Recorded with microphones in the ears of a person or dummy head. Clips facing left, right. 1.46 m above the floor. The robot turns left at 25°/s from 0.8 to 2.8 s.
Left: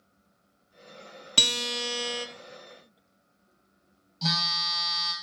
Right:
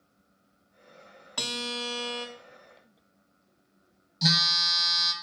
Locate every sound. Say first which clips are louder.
1.4 s a guitar: left 1 dB; 45° left (ahead or behind), 0.7 m; by 2.3 s 25° left (ahead or behind), 0.7 m
4.2 s a phone buzzing: right 3 dB; 20° right (ahead or behind), 0.6 m